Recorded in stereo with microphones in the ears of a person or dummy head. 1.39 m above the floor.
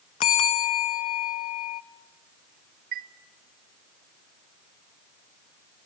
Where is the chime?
40° right (ahead or behind), 0.6 m.